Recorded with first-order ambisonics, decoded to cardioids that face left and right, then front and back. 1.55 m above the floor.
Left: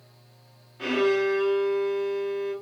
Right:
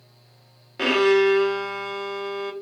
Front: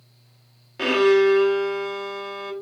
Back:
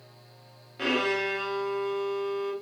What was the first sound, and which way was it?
A violin, 65° right.